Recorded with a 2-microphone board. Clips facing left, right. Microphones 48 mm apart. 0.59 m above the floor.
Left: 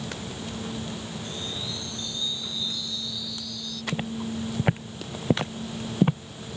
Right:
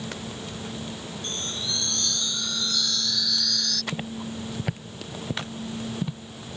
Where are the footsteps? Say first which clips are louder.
Left 2 dB; 5° left (ahead or behind); by 6.2 s 50° left (ahead or behind).